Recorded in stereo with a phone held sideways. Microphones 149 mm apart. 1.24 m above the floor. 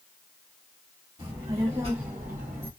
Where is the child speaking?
35° right (ahead or behind), 1.7 m; by 2.7 s 40° right (ahead or behind), 0.6 m.